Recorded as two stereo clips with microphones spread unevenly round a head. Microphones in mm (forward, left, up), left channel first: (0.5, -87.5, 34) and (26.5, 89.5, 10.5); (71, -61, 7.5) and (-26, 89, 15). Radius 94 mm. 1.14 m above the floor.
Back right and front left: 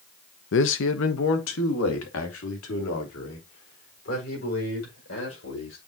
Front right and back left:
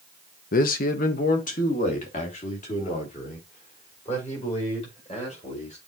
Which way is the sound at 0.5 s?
90° right.